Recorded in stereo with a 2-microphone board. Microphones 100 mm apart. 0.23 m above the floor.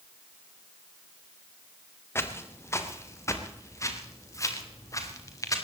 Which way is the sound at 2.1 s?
25° left (ahead or behind).